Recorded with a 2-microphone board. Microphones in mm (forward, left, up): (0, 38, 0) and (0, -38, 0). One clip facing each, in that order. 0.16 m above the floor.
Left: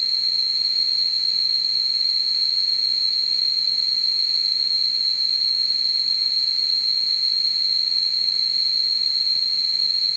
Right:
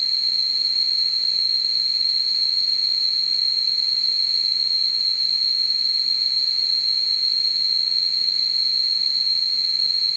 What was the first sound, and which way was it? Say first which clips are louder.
An insect: even; 35° right (ahead or behind).